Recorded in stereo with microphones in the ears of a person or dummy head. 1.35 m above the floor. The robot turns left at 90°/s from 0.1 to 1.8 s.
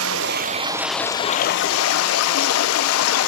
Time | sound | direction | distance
0.0 | running water | 105° right | 0.8 m